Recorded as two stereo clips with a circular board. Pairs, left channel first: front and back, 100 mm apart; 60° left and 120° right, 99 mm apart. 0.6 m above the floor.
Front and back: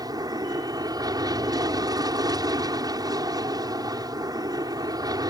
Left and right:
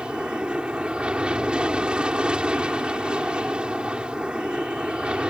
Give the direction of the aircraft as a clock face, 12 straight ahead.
7 o'clock.